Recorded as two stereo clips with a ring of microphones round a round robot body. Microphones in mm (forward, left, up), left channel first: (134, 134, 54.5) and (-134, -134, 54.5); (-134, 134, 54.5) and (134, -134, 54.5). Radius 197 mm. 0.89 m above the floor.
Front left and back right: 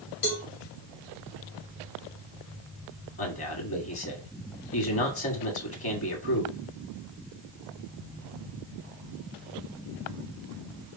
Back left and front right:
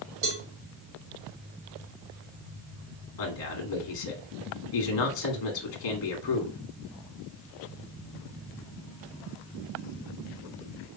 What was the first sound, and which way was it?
A cowbell, 10° left.